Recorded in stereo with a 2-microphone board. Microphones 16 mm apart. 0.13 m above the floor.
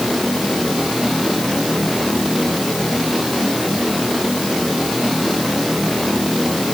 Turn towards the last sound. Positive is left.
No sound to turn to.